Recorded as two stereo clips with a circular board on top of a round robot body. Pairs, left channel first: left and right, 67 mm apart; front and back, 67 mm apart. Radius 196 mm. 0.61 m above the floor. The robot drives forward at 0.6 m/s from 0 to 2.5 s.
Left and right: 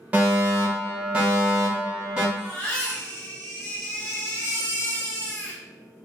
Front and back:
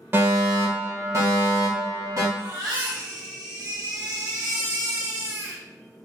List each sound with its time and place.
0.1 s a fire alarm: 145° right, 1.9 m; by 2.2 s 165° right, 3 m
2.4 s a baby crying: 165° left, 1.6 m